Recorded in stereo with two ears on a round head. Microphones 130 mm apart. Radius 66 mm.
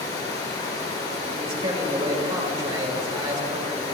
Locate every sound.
0.0 s running water: 25° left (ahead or behind), 3.5 m
1.3 s a man speaking: 30° right (ahead or behind), 4 m